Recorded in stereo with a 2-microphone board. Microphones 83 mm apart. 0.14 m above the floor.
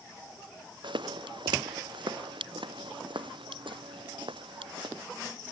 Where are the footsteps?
70° right (ahead or behind); by 5.0 s 80° right.